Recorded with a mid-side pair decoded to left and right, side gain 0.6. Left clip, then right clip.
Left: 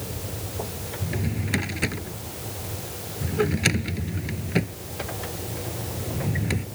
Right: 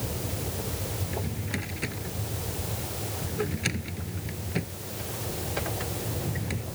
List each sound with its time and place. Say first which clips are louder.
1.0 s a drawer: left 3 dB; 35° left